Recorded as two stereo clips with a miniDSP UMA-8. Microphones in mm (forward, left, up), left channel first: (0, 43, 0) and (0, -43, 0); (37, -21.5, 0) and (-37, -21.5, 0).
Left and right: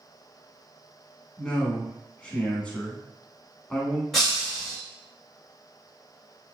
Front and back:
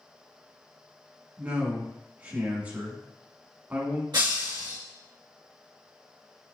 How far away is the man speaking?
About 1.1 m.